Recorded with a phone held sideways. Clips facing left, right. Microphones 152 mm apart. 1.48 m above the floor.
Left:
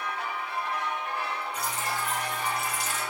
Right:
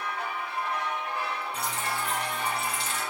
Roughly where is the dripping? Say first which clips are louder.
Even; right.